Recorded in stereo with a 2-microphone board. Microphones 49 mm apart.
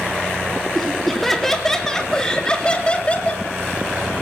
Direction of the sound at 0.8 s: Centre (ahead or behind).